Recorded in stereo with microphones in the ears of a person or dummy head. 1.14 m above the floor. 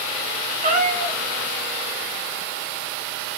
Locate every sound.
0.6 s a cat meowing: 45° right (ahead or behind), 1.6 m